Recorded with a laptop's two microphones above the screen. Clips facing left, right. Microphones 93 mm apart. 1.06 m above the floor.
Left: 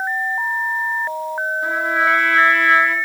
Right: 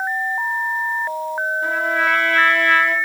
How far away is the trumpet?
About 2.5 m.